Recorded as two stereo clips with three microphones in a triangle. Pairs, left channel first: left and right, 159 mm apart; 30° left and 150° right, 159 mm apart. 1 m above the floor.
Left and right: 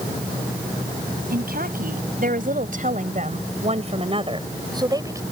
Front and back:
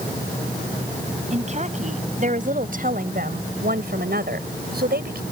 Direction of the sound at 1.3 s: 105° right.